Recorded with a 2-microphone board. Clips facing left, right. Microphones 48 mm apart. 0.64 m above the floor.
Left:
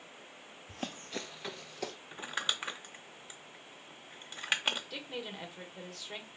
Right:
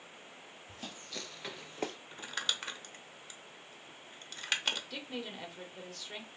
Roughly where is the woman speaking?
Centre.